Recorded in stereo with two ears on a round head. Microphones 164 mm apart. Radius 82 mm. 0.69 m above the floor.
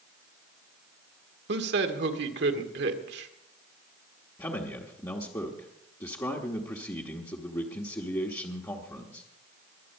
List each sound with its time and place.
1.5 s a man speaking: 65° right (ahead or behind), 1.8 m
4.4 s a man speaking: 15° left (ahead or behind), 1.2 m